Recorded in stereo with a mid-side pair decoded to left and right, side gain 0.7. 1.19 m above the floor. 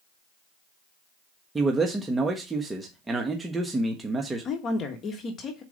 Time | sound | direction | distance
1.6 | a man speaking | 15° right | 1.2 m
4.5 | a woman speaking | 35° left | 1.4 m